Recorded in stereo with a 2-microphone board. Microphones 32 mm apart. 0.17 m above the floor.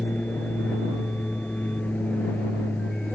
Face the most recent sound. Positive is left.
turn(degrees=60)  # may be behind; listen again after turning